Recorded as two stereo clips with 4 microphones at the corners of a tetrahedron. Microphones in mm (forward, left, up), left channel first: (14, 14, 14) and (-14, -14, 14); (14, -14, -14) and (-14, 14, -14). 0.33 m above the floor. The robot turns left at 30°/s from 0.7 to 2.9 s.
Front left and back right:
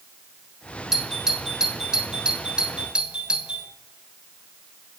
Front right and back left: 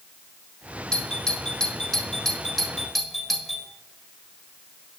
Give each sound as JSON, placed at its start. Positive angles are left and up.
{"t": 0.9, "sound": "a doorbell", "azimuth_deg": -75, "distance_m": 1.6}